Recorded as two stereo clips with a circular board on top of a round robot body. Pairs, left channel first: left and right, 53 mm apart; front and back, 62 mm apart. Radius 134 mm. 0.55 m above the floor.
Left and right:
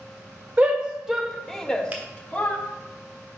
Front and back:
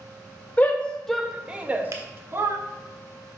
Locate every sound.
0.6 s a shout: 40° right, 1.0 m; by 2.6 s 150° left, 1.3 m
1.9 s a finger snap: 150° right, 1.3 m